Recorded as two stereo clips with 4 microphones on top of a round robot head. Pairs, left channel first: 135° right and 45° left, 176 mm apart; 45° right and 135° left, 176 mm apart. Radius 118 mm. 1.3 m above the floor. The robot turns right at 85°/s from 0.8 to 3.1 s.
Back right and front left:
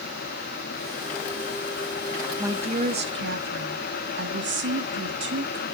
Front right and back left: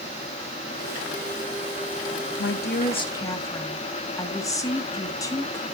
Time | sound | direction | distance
2.4 | a woman speaking | 35° right | 1.8 m